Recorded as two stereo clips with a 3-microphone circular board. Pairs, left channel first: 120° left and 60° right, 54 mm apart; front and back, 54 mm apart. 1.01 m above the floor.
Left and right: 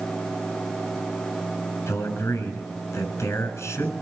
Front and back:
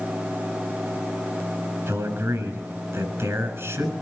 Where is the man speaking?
145° left, 7 m.